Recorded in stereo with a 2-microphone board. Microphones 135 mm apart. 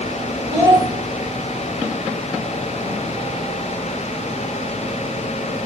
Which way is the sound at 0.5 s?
25° right (ahead or behind).